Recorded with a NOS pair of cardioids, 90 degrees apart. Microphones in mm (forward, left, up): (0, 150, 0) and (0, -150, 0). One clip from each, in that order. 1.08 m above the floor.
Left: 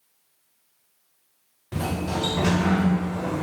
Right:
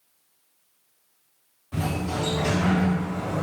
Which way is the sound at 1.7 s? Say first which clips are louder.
Left 1 dB; 40° left.